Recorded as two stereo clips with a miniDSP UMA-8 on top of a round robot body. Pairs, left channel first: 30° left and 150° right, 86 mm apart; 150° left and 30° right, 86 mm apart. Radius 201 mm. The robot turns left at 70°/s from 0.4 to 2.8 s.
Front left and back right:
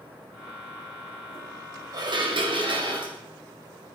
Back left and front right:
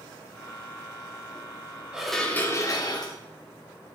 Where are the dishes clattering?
110° right, 2.5 m; by 3.1 s 170° right, 2.5 m.